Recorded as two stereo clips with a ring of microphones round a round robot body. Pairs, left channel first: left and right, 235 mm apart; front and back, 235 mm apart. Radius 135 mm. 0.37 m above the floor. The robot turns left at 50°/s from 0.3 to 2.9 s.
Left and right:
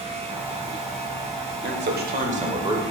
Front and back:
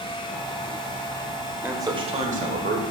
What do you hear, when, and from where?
1.6 s a man speaking: 100° right, 1.2 m; by 2.8 s 160° right, 1.2 m